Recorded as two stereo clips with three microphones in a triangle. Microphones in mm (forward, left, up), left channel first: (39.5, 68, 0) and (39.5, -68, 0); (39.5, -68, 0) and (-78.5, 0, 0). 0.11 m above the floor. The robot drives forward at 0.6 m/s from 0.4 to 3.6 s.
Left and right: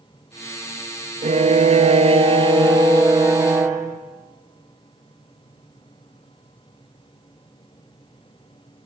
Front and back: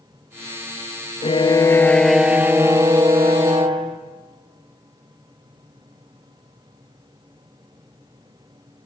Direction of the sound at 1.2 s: 65° right.